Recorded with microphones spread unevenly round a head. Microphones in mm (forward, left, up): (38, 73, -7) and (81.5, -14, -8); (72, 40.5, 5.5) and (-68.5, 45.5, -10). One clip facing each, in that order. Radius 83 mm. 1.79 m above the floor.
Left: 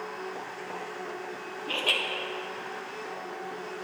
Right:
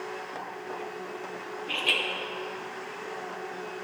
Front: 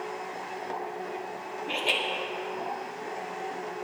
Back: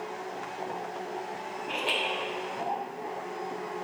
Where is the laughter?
60° left, 1.3 m.